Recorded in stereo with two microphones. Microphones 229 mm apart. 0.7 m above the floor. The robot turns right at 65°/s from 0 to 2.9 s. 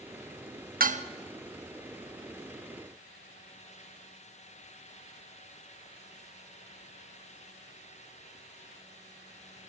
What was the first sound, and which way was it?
Dishes clattering, 40° right (ahead or behind).